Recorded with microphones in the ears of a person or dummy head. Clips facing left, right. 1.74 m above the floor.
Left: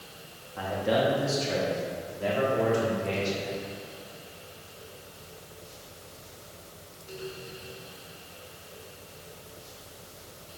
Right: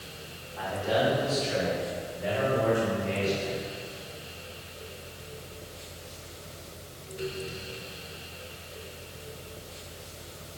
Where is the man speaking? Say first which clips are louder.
Left 1 dB; 50° left (ahead or behind), 3.5 m; by 3.5 s 80° left, 5.5 m.